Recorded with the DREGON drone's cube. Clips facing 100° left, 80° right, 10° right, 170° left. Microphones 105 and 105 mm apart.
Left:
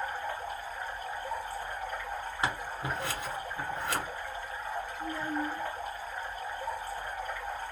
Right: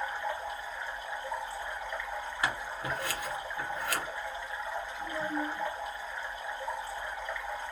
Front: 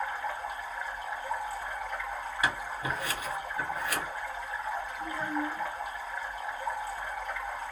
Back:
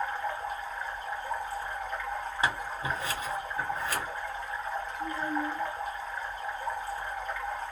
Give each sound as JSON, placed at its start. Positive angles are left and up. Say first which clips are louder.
{"t": 0.0, "sound": "running water", "louder": "right 1 dB, back 1 dB", "azimuth_deg": 75, "distance_m": 2.0}
{"t": 2.4, "sound": "scissors", "louder": "left 1 dB, back 1 dB", "azimuth_deg": 145, "distance_m": 1.5}
{"t": 5.0, "sound": "a child speaking", "louder": "even, back 2 dB", "azimuth_deg": -20, "distance_m": 1.6}